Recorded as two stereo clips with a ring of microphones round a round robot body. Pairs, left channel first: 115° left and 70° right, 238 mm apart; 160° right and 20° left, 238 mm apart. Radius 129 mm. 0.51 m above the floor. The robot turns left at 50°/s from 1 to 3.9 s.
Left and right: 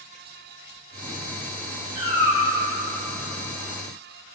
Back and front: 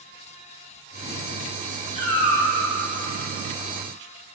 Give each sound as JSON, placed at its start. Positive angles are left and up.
{"t": 1.9, "sound": "a cat meowing", "azimuth_deg": -90, "distance_m": 2.5}